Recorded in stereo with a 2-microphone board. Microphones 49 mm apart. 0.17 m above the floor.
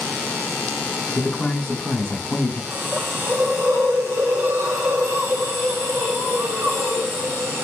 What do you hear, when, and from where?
1.1 s a man speaking: 20° left (ahead or behind), 1.0 m
2.7 s a hiss: 70° right (ahead or behind), 3.5 m